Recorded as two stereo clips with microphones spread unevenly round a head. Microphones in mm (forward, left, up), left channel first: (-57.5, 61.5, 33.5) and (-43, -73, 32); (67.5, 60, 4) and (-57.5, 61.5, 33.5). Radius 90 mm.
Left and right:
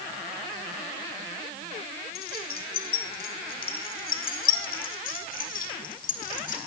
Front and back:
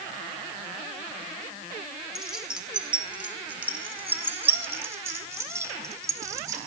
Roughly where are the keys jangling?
Left.